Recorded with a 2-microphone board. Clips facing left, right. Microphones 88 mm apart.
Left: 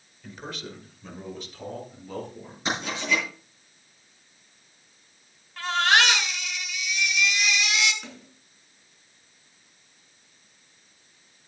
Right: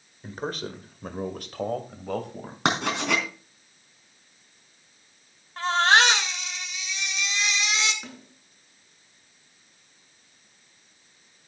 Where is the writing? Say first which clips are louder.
Right 3 dB; 75° right (ahead or behind), 4 m.